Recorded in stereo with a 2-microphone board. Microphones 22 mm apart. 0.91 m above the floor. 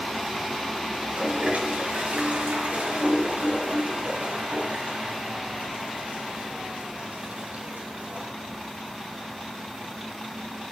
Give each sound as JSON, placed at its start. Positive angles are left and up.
{"t": 1.0, "sound": "a toilet flushing", "side_deg": -80, "distance_m": 2.5}